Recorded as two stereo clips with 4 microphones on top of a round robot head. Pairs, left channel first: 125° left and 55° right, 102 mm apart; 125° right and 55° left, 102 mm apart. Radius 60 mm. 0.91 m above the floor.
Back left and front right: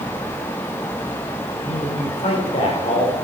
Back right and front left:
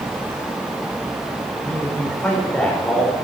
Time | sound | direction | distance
1.6 | a man speaking | 160° left | 4.5 m